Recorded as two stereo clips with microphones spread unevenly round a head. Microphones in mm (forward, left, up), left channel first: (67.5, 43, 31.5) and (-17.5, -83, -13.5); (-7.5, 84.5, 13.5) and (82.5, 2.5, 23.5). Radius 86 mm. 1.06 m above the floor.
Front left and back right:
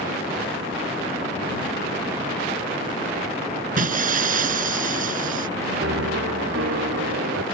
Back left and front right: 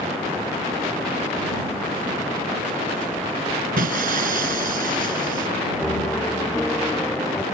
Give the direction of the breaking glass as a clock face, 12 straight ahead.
3 o'clock.